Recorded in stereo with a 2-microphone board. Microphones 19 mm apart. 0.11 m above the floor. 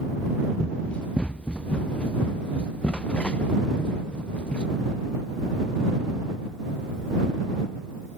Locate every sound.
0.6 s running footsteps: 80° left